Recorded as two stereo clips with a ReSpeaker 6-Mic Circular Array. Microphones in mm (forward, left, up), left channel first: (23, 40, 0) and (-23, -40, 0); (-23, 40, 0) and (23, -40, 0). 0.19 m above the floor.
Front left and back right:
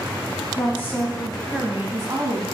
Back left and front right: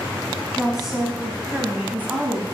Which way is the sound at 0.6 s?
30° left.